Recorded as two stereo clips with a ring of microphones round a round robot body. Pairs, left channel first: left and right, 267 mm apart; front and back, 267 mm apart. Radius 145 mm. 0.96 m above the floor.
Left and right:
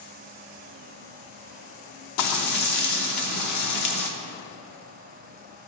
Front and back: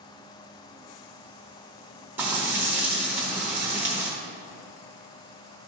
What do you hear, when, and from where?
2.2 s frying: 95° left, 0.9 m